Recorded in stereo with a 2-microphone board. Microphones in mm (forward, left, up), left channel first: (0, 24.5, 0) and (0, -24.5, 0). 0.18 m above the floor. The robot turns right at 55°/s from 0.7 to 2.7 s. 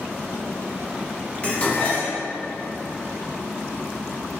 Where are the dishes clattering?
40° left, 0.9 m; by 2.2 s 80° left, 0.9 m.